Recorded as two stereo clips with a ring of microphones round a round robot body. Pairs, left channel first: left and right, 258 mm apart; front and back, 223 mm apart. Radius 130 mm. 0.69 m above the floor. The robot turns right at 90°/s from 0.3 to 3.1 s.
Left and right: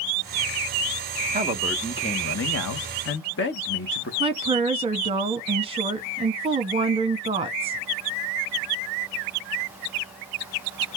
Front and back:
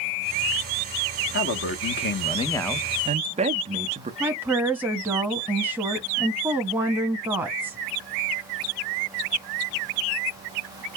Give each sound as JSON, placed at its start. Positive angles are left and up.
{"t": 1.3, "sound": "a man speaking", "azimuth_deg": -35, "distance_m": 0.8}
{"t": 4.2, "sound": "a woman speaking", "azimuth_deg": -110, "distance_m": 1.1}